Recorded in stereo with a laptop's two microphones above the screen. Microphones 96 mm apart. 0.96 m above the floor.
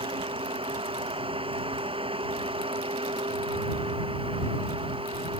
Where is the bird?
I don't hear a bird.